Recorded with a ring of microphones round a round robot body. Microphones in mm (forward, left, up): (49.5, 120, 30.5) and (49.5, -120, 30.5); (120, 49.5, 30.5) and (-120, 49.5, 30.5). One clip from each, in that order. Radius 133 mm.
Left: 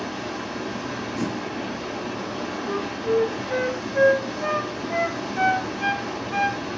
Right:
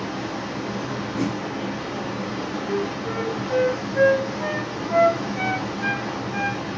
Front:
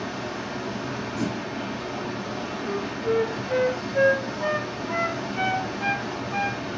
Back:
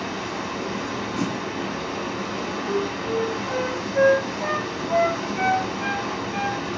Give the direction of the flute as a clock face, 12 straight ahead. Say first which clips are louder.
Left 4 dB, front 1 dB; 10 o'clock.